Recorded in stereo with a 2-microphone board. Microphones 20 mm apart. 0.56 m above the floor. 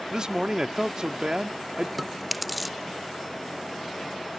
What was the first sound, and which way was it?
A man speaking, 35° right (ahead or behind).